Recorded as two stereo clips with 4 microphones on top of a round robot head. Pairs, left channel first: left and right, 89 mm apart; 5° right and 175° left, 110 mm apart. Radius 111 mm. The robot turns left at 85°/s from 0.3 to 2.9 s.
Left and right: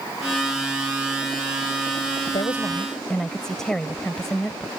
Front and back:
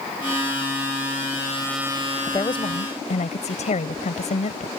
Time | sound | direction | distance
2.3 | a woman speaking | 60° left | ?